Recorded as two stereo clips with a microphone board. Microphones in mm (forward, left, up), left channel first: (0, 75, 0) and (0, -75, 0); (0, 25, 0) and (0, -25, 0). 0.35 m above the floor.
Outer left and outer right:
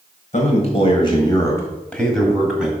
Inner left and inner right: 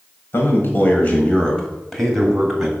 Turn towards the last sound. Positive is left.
turn(degrees=-5)  # may be behind; listen again after turning